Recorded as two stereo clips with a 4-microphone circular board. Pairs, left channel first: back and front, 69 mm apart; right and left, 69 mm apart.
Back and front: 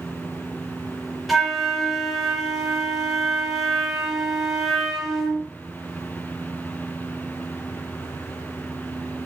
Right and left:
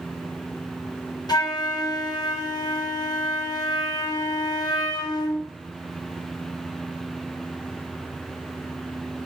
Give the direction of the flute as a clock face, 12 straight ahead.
3 o'clock.